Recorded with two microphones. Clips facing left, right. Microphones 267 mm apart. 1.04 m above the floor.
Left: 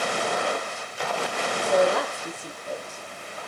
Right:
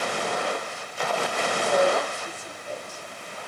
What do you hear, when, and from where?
1.6 s a woman speaking: 65° left (ahead or behind), 5 m